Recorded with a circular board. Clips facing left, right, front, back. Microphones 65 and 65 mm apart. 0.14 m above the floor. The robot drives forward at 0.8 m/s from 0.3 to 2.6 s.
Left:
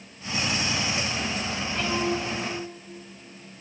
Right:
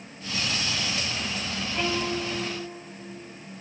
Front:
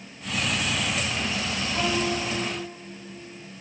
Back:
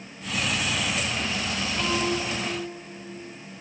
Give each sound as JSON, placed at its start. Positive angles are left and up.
{"t": 1.7, "sound": "a violin", "azimuth_deg": -5, "distance_m": 5.5}